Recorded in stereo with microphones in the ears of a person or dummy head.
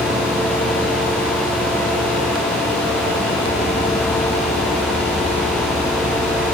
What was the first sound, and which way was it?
Only background noise.